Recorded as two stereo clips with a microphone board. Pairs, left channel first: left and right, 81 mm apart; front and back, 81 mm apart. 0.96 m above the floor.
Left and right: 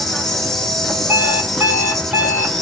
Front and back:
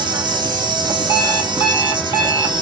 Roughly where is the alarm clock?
Ahead.